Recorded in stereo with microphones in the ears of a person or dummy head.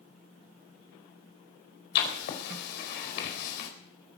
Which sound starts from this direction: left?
Writing, at 1.9 s.